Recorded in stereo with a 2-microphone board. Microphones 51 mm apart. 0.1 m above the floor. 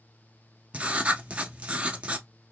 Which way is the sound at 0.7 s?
25° right (ahead or behind).